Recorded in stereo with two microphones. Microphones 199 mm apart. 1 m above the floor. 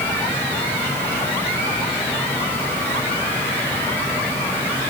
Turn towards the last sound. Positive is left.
No sound to turn to.